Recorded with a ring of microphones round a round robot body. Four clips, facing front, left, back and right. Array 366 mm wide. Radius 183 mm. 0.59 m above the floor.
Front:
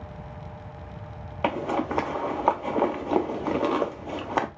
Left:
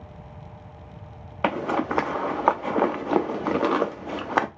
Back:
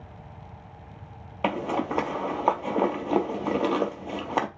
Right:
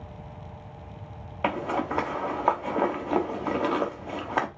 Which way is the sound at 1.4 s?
100° left.